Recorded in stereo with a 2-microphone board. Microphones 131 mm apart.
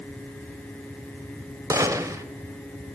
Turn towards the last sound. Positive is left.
turn(degrees=-20)  # may be behind; listen again after turning